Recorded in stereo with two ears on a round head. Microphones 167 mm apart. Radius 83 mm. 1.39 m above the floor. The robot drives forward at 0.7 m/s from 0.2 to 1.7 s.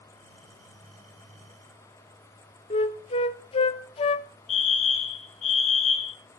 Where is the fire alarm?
40° left (ahead or behind), 1.4 m.